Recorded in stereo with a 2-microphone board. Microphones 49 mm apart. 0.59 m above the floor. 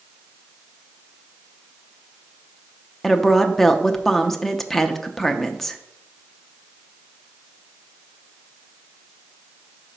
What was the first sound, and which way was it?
A woman speaking, 5° left (ahead or behind).